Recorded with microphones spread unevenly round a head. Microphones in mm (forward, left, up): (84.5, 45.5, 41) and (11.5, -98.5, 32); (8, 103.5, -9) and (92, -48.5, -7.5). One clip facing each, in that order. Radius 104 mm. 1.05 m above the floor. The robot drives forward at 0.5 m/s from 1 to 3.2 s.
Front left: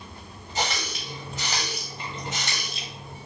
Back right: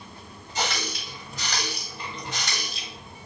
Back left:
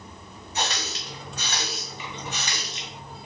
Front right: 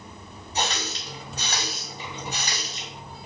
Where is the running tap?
5° right, 1.6 m.